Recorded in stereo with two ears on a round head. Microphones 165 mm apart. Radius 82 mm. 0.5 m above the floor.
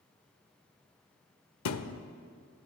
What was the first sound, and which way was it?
A thud, 80° left.